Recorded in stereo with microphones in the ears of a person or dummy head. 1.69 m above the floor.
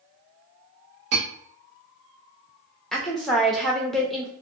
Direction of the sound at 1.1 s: 40° right (ahead or behind).